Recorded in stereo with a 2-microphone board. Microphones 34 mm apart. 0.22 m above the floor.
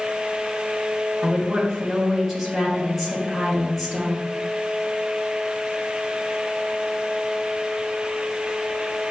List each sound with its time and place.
1.2 s a woman speaking: centre (ahead or behind), 3.5 m